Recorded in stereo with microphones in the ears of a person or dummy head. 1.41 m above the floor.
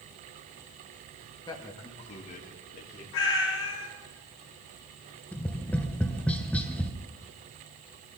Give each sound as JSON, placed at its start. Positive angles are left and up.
{"t": 1.5, "sound": "a man speaking", "side_deg": 20, "distance_m": 1.8}
{"t": 3.1, "sound": "a cat meowing", "side_deg": 60, "distance_m": 3.0}
{"t": 5.3, "sound": "tapping", "side_deg": 10, "distance_m": 1.1}